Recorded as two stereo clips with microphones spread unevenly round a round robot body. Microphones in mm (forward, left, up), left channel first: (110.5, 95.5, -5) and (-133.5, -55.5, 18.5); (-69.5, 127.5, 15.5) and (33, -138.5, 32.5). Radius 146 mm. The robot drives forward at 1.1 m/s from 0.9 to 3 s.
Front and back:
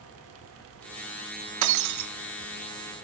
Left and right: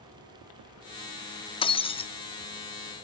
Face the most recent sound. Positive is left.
turn(degrees=180)